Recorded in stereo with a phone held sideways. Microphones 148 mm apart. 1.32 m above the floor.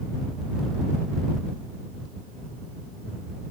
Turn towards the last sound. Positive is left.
No sound to turn to.